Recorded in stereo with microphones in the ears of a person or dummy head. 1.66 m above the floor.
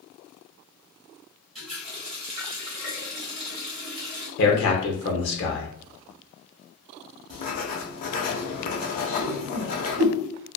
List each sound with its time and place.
1.6 s a running tap: centre (ahead or behind), 1.4 m
4.4 s a man speaking: 60° left (ahead or behind), 0.8 m
7.3 s writing: 40° left (ahead or behind), 0.5 m
9.2 s a whoosh: 55° right (ahead or behind), 0.5 m